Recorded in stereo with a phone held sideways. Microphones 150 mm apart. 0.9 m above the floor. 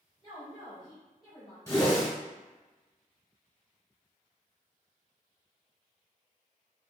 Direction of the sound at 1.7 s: 15° left (ahead or behind).